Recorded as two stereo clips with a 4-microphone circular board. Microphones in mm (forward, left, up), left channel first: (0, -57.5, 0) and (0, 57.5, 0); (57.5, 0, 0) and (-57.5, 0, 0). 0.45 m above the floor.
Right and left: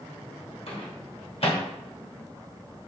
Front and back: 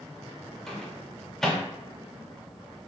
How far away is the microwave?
About 0.8 m.